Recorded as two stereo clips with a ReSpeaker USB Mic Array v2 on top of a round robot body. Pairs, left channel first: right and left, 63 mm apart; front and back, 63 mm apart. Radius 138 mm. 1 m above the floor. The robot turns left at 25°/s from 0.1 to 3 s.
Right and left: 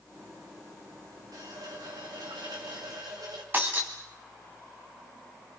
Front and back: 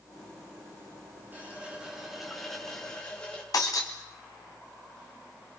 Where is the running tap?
110° left, 4 m; by 3.4 s 70° left, 4 m.